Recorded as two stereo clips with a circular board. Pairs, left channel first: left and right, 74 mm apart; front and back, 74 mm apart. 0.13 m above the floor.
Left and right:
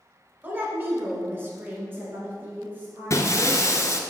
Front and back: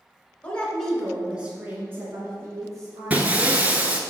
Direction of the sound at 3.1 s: 115° left.